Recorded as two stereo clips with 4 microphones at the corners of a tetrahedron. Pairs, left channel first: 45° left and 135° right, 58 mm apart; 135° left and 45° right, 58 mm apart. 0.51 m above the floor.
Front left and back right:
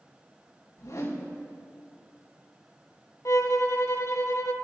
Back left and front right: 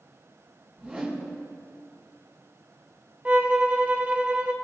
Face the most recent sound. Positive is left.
turn(degrees=20)